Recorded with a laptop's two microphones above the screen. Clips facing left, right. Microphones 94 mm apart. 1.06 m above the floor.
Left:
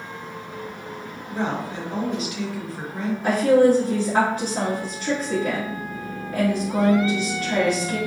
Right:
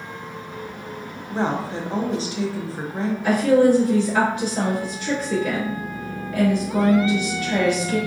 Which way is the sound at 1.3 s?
30° right (ahead or behind).